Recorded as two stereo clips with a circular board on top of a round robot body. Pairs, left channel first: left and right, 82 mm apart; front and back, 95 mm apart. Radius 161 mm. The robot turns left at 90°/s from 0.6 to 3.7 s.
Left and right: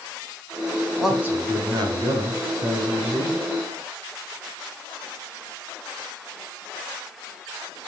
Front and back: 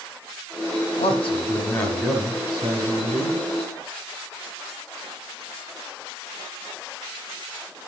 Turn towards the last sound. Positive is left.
turn(degrees=120)